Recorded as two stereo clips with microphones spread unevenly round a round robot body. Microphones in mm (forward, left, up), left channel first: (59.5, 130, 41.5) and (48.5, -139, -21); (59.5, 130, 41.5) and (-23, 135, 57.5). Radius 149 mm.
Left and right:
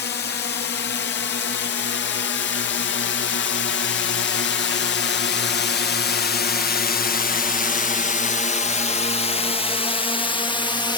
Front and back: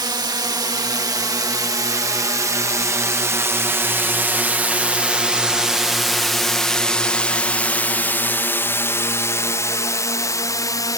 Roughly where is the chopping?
No chopping in this recording.